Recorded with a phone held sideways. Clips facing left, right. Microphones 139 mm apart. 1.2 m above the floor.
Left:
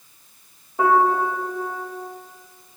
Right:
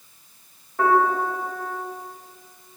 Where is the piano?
15° left (ahead or behind), 1.0 m.